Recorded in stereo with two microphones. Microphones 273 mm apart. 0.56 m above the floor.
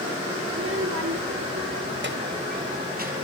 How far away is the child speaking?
About 1.1 m.